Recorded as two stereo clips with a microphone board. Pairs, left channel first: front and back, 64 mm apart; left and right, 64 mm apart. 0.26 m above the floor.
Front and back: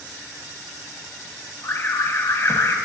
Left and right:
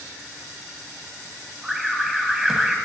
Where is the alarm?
10° right, 1.4 m.